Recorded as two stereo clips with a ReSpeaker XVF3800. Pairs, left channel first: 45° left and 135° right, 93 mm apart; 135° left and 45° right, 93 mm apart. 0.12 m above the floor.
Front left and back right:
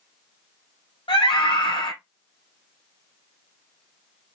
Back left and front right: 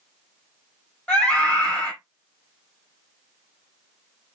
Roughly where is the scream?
Ahead left.